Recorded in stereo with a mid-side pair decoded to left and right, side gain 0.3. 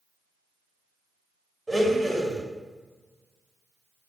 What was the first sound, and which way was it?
A blender, 5° right.